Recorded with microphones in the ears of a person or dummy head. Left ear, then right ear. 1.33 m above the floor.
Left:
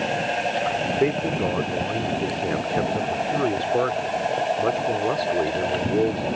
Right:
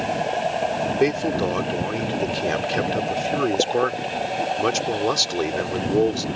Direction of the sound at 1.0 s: 90° right.